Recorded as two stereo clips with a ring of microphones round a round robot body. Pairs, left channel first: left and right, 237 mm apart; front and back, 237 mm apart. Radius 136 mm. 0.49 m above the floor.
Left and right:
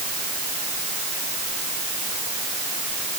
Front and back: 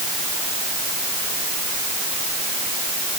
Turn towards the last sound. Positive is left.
No sound to turn to.